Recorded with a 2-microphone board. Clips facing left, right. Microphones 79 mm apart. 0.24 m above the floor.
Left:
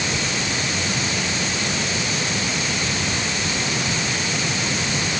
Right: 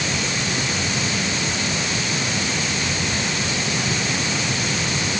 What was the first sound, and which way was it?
Only background noise.